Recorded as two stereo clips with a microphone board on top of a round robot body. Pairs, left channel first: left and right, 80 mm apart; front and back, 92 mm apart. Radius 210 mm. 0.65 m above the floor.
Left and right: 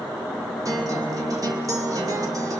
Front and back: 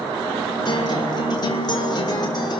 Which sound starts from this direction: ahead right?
A guitar, at 0.7 s.